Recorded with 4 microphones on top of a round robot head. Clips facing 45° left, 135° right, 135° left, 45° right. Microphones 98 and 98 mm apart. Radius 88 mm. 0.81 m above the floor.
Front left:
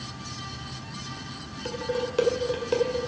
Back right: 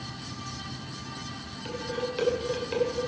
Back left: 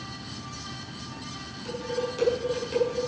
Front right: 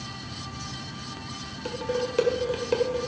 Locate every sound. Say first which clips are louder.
1.6 s dishes clattering: front left 3 dB, front right 2 dB; 10° right, 2 m